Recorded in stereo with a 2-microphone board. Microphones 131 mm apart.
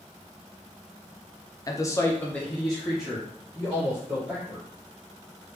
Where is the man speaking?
25° left (ahead or behind), 0.5 m; by 4.7 s 10° right (ahead or behind), 2 m.